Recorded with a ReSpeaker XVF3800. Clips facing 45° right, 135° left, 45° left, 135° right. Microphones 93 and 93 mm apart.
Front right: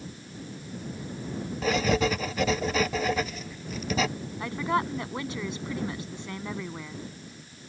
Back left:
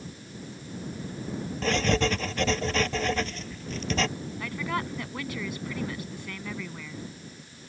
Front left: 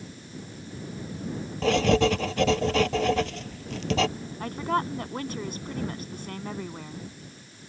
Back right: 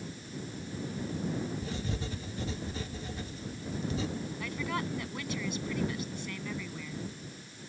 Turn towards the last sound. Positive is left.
turn(degrees=15)